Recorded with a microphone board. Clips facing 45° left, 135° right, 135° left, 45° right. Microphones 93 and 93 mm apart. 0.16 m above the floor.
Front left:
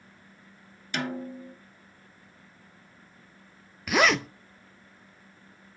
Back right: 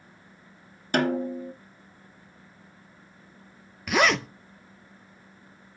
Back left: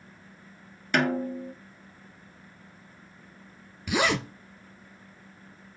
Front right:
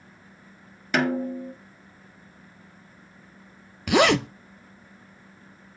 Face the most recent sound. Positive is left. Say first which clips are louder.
# even, front right 7 dB
turn(degrees=-45)